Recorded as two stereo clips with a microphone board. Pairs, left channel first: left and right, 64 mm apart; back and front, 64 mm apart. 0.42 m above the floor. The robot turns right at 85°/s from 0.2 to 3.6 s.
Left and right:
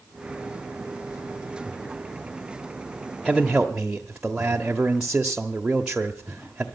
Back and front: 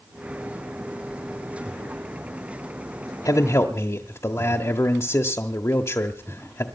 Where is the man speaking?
165° left, 1.2 m; by 6.7 s 165° right, 1.2 m.